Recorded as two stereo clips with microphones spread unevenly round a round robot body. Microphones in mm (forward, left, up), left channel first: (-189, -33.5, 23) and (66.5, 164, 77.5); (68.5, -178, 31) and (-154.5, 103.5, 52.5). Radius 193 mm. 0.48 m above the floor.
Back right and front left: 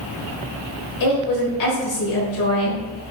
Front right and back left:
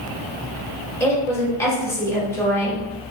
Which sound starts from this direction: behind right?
A woman speaking, at 1.0 s.